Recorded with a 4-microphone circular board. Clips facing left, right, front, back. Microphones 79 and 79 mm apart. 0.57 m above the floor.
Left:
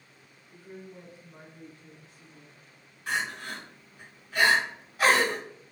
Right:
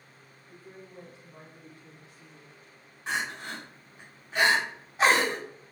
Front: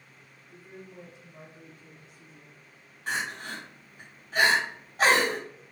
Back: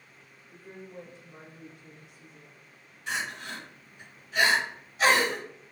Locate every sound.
0.5 s a woman speaking: 115° right, 1.9 m; by 2.6 s 175° right, 3 m
3.1 s crying: 30° right, 1.9 m